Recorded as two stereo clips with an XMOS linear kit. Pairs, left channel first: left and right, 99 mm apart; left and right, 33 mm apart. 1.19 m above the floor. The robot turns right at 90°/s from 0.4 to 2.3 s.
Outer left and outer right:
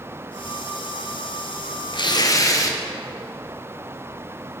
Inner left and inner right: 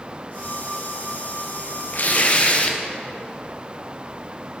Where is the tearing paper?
100° left, 0.6 m; by 2.8 s 135° left, 0.6 m.